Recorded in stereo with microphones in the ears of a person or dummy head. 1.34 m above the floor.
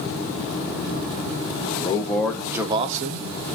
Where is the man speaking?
30° left (ahead or behind), 0.8 m; by 3.4 s 60° right (ahead or behind), 0.7 m.